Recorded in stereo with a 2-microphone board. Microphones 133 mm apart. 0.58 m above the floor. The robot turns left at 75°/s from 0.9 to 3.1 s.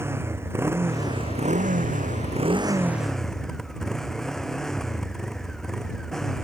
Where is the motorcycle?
20° right; by 6.4 s 175° left.